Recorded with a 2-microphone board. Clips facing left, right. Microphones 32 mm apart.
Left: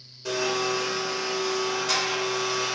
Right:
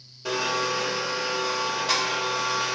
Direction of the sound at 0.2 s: 20° right (ahead or behind).